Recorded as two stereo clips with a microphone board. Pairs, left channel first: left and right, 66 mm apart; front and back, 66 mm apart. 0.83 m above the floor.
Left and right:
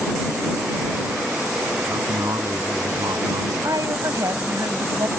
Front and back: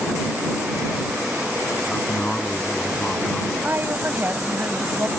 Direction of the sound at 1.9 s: 70° right.